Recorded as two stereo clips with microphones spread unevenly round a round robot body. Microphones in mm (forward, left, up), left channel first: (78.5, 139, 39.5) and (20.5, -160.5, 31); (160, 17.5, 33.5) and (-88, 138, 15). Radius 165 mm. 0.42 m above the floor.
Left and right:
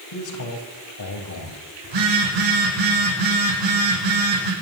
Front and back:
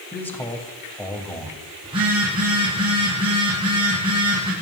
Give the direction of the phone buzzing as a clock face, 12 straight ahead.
4 o'clock.